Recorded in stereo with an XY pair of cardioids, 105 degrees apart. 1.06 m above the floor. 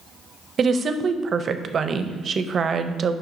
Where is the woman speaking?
50° right, 0.5 m.